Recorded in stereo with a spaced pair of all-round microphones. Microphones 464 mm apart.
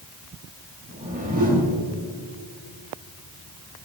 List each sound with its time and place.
0.9 s a whoosh: 20° right (ahead or behind), 2.5 m